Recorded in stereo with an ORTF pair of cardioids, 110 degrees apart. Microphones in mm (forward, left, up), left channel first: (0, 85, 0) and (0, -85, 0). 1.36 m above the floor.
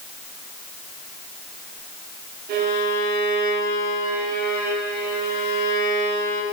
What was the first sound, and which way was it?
A violin, 70° right.